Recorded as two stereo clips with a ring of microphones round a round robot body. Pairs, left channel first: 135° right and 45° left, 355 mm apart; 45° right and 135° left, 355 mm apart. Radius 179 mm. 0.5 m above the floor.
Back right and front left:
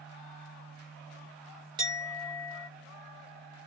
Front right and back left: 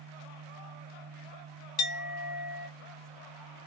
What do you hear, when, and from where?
1.8 s a clink: 30° right, 1.4 m